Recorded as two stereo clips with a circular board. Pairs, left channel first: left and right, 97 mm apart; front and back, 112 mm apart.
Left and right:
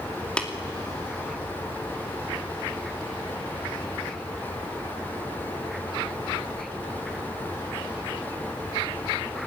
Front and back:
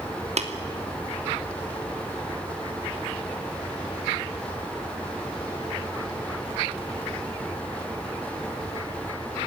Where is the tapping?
170° left, 2.5 m.